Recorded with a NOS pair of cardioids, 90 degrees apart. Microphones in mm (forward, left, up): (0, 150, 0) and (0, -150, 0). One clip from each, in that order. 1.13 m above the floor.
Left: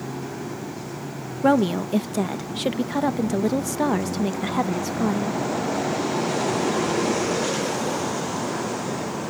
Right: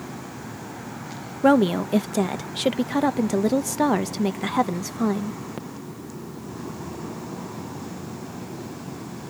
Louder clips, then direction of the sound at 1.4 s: Right 2 dB; 10° right.